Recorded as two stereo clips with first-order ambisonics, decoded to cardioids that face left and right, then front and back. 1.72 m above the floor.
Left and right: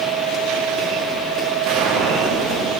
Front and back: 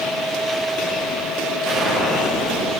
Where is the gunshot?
120° right, 2 m.